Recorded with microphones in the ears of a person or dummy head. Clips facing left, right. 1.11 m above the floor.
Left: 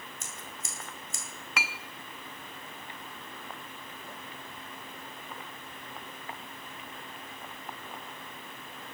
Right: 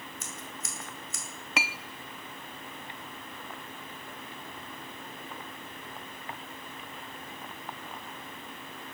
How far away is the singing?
No singing in this recording.